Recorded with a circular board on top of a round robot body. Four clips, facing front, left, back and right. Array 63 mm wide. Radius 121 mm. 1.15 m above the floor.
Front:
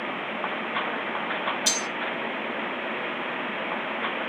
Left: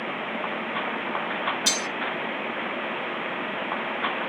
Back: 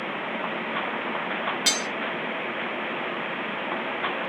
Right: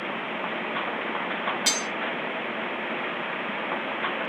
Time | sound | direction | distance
1.7 | cutlery clinking | 155° right | 0.6 m